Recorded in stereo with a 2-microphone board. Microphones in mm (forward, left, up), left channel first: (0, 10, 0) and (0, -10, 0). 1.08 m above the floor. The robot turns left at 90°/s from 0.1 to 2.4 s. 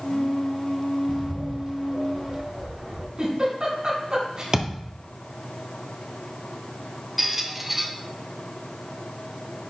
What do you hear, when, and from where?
1.1 s a bird: 15° right (ahead or behind), 1.6 m; by 3.1 s 40° right (ahead or behind), 1.6 m
3.2 s a giggle: 50° right (ahead or behind), 3 m
4.5 s a thud: 40° right (ahead or behind), 1.6 m
7.2 s a squeak: 15° right (ahead or behind), 0.8 m